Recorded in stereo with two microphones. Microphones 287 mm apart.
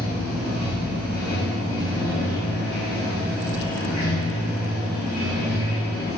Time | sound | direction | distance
0.0 | running water | 70° right (ahead or behind) | 1.3 m